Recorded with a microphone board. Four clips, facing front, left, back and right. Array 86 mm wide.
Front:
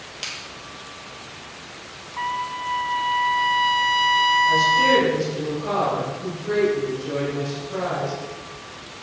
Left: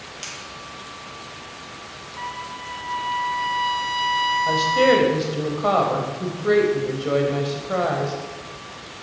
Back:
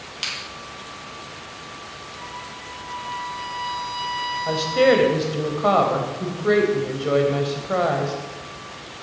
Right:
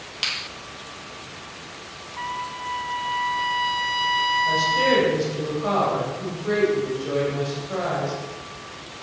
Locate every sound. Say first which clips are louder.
0.2 s a finger snap: right 7 dB, back 4 dB; 115° right, 0.5 m
2.2 s a trumpet: right 2 dB, front 13 dB; 5° right, 0.8 m
4.5 s a woman speaking: left 5 dB, even; 150° left, 3.5 m